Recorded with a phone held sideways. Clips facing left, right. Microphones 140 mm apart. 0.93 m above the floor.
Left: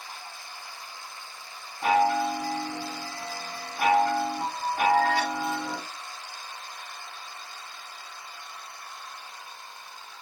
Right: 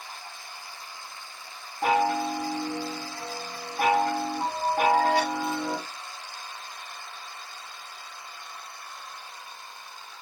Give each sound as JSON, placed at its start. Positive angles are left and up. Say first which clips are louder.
{"t": 1.8, "sound": "a chime", "louder": "left 1 dB", "side_deg": -50, "distance_m": 1.0}